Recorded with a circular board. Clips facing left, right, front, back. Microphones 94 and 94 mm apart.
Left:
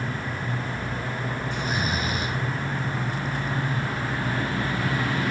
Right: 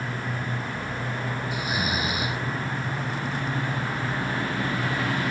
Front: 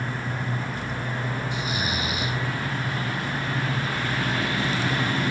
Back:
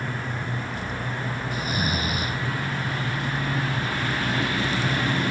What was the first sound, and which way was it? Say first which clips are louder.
Snoring: even, back 1 dB; 165° right.